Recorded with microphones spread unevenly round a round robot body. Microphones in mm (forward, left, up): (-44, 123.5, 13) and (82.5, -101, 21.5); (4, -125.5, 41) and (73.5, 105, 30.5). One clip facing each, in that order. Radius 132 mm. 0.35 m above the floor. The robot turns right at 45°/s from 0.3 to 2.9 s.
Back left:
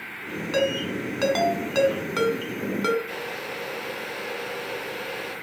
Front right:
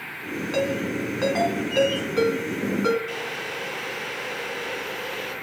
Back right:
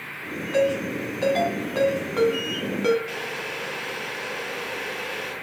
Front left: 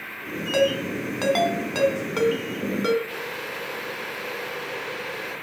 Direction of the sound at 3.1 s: 155° right.